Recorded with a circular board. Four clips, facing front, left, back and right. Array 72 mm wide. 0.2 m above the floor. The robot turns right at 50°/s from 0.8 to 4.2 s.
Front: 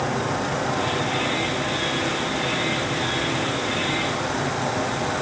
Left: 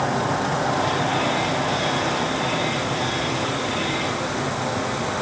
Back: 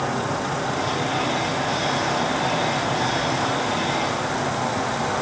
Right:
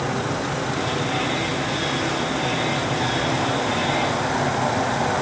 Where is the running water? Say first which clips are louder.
Left 2 dB, even; 75° left, 2.5 m; by 5.2 s 115° right, 2.5 m.